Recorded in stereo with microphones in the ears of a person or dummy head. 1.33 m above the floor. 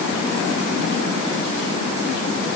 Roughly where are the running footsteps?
No running footsteps in this recording.